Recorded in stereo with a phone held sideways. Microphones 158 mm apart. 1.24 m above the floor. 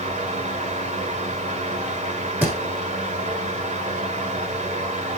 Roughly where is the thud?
Centre.